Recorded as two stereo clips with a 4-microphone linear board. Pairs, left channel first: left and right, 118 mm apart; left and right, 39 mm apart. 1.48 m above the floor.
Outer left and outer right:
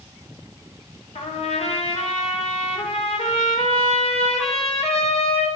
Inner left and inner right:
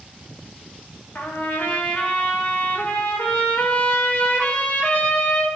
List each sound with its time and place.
1.1 s a trumpet: 60° left (ahead or behind), 4.5 m